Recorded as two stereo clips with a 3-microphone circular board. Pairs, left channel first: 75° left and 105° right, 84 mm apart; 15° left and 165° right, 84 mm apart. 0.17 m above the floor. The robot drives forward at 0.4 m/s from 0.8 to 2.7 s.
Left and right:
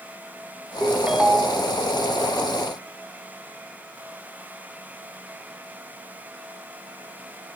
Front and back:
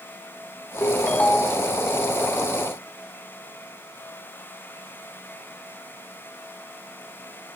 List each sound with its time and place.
0.8 s a ringtone: 30° right, 0.6 m; by 1.7 s 95° right, 0.5 m